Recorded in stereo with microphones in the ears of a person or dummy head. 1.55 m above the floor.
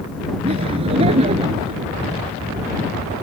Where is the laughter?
35° right (ahead or behind); by 1.8 s 30° right (ahead or behind).